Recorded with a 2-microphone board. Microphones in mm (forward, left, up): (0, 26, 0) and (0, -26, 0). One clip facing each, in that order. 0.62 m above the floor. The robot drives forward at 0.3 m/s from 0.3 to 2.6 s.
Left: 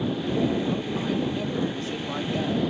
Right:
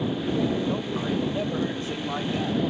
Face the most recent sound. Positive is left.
turn(degrees=-20)  # may be behind; listen again after turning